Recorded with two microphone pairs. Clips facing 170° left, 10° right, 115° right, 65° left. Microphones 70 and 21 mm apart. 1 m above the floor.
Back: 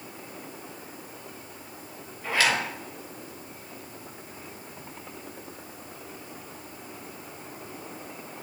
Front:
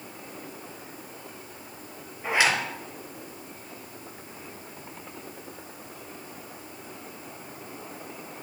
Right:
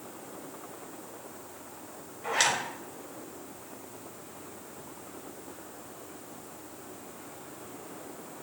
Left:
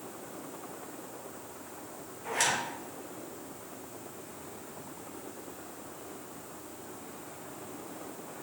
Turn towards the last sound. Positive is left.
turn(degrees=-75)